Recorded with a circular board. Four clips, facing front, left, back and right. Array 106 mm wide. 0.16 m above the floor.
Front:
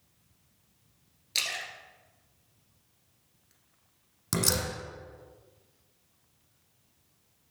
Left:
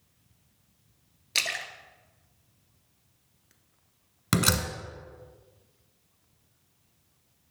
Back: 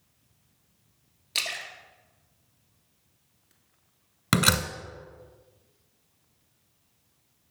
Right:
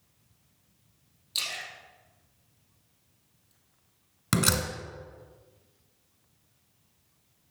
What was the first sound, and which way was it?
A splash, 95° left.